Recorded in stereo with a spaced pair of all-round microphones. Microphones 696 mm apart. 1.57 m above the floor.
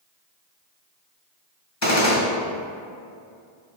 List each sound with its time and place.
1.8 s a gunshot: 25° left (ahead or behind), 1.2 m